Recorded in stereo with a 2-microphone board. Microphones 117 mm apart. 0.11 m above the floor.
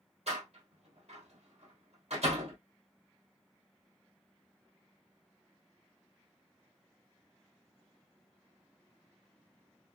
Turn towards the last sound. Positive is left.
turn(degrees=-60)  # may be behind; listen again after turning